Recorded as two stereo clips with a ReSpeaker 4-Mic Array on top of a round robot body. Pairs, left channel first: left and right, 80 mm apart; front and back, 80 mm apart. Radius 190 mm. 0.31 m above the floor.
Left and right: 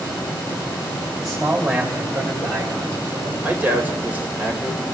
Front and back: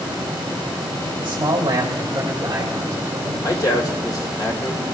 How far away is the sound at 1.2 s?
About 1.8 m.